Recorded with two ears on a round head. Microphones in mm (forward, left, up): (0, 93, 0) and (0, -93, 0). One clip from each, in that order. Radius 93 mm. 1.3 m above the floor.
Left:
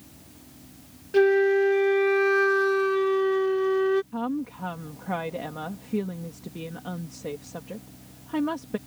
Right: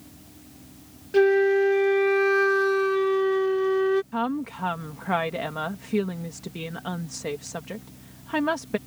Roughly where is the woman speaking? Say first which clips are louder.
Right 3 dB; right.